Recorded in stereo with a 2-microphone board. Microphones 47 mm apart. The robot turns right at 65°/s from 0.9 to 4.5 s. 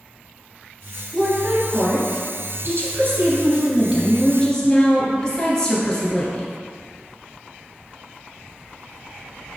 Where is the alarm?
No alarm in this recording.